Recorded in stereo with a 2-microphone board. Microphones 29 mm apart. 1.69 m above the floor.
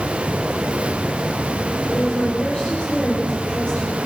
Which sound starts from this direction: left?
A woman speaking, at 1.9 s.